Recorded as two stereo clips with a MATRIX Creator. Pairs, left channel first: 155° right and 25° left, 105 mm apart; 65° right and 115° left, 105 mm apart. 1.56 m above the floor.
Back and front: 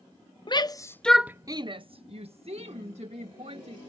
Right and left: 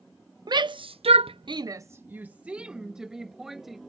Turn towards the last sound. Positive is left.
turn(degrees=25)